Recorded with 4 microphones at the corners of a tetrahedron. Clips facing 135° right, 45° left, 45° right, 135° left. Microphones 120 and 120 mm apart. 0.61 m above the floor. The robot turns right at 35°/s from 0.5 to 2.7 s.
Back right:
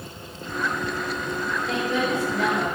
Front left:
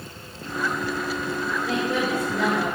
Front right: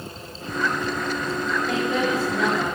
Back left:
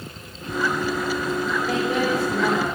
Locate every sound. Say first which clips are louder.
1.7 s a woman speaking: even, back left 1 dB; 45° left, 7 m; by 2.6 s 80° left, 7 m